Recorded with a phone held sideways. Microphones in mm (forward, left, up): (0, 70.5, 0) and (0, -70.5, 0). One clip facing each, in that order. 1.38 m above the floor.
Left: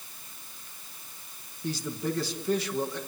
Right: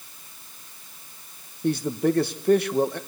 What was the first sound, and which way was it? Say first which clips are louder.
A man speaking: right 9 dB; 60° right (ahead or behind).